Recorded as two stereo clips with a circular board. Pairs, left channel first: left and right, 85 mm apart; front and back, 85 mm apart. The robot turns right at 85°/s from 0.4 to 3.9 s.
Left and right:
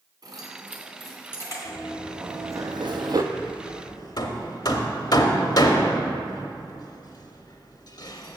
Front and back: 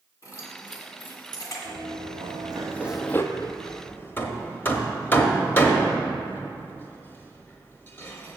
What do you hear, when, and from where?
0.2 s keys jangling: 50° right, 1.8 m; by 1.6 s 45° left, 1.8 m
1.6 s running footsteps: 135° left, 1.9 m; by 3.2 s 45° right, 0.5 m
3.3 s hammering: 15° left, 0.8 m; by 8.4 s 60° left, 0.8 m